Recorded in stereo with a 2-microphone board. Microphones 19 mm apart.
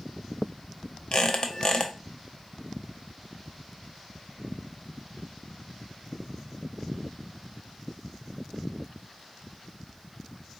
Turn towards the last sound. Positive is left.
turn(degrees=45)  # may be behind; listen again after turning